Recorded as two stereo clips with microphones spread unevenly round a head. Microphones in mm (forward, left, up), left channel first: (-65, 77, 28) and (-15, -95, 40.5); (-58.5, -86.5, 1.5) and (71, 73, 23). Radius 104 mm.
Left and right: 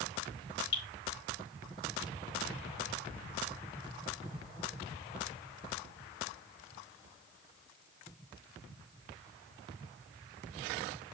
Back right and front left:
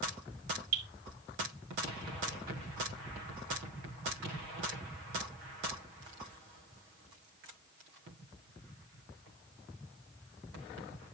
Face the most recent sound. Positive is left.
turn(degrees=75)